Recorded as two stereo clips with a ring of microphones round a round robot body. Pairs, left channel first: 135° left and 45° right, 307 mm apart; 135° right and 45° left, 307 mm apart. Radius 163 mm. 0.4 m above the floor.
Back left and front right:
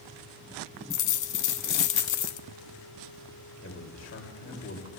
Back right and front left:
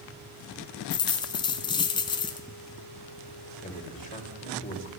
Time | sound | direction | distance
0.9 | a dropped coin | 150° left | 0.7 m
3.6 | a man speaking | 170° left | 2.5 m